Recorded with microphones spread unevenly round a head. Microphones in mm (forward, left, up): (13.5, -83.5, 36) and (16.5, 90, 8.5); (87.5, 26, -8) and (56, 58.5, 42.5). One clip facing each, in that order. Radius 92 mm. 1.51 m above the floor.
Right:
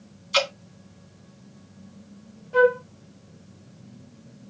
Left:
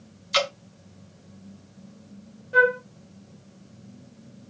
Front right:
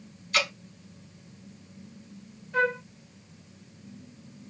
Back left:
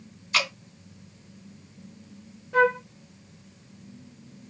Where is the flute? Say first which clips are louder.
Right 4 dB, back left 5 dB; 160° left, 1.5 m.